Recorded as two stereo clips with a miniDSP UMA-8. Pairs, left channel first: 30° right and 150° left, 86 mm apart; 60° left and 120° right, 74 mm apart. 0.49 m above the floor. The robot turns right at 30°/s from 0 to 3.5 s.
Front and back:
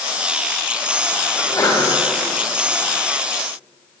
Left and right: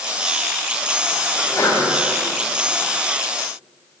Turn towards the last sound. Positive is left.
turn(degrees=70)